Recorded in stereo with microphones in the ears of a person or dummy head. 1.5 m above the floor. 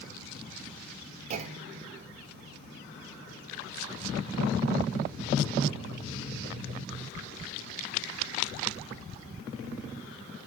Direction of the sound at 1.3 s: 40° right (ahead or behind).